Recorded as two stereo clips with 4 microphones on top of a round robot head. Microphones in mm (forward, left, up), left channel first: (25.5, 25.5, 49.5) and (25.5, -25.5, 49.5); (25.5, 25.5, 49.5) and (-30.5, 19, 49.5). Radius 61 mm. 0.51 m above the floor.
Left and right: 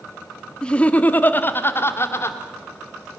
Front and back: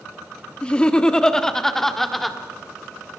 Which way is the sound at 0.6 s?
45° left.